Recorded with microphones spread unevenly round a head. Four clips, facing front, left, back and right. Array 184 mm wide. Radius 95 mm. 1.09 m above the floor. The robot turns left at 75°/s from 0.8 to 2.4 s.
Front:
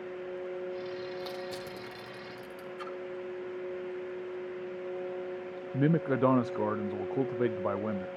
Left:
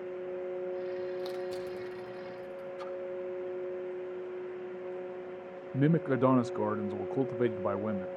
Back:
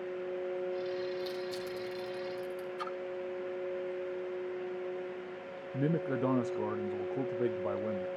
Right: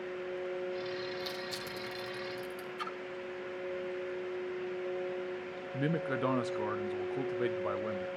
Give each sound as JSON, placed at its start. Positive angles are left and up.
{"t": 1.2, "sound": "crushing", "azimuth_deg": 35, "distance_m": 3.0}
{"t": 2.8, "sound": "a splash", "azimuth_deg": 155, "distance_m": 0.8}
{"t": 5.7, "sound": "a man speaking", "azimuth_deg": 30, "distance_m": 0.5}